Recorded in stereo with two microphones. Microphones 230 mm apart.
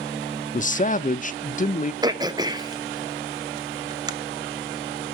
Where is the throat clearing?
15° right (ahead or behind), 0.7 m.